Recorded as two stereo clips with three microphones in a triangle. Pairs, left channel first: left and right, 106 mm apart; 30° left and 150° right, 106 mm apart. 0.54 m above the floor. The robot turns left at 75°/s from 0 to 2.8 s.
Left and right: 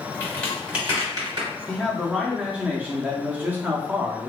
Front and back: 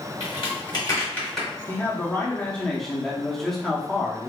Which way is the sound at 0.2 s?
30° left.